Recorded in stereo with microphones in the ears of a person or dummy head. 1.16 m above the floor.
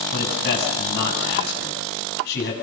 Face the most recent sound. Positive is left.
turn(degrees=75)  # may be behind; listen again after turning